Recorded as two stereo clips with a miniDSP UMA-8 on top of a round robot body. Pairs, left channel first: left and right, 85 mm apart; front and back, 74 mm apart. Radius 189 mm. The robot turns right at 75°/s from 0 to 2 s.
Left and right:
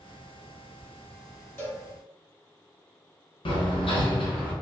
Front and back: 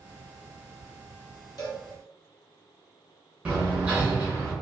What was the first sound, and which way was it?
A cowbell, 30° left.